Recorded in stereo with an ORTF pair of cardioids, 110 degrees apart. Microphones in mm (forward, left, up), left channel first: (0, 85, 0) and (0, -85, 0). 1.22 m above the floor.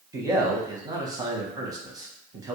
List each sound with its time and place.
0.1 s a man speaking: 20° right, 0.8 m